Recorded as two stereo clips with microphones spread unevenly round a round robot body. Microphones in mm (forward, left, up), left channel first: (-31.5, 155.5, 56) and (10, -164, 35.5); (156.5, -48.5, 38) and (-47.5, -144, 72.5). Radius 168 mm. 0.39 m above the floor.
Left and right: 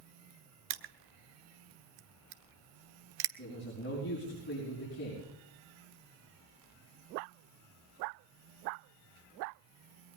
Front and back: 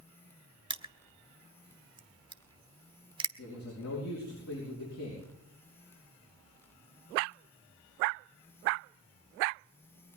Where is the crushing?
85° right, 1.3 m.